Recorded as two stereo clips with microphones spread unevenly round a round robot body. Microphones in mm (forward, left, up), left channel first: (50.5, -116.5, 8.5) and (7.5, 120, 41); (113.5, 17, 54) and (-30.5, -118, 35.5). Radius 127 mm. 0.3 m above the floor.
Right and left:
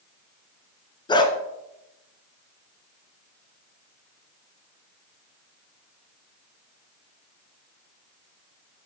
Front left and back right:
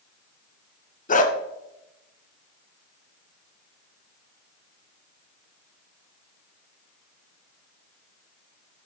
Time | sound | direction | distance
1.1 | a dog barking | 10° right | 1.3 m